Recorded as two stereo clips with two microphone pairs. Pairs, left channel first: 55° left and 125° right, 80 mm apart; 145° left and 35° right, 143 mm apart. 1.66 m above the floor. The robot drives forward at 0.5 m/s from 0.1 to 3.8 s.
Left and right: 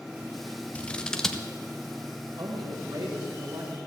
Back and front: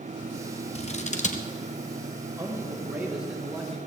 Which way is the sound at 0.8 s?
125° left.